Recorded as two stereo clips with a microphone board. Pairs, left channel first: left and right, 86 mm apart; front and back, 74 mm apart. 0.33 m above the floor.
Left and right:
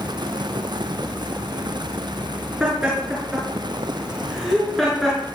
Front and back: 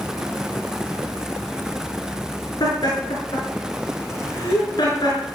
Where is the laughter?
10° right, 6 m; by 5.2 s 5° left, 5.5 m.